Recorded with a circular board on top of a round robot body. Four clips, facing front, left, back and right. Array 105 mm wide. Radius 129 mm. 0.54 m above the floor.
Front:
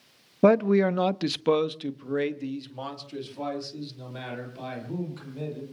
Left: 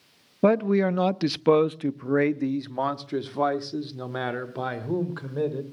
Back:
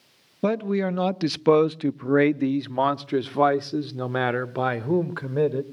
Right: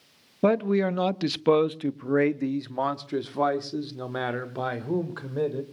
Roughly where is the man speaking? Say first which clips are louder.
Left 2 dB, front 4 dB; ahead.